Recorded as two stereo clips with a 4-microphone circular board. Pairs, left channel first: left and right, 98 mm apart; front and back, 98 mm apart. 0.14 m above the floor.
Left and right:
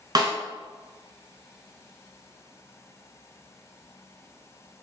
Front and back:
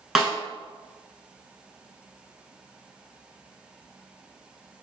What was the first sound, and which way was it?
A snare drum, 95° right.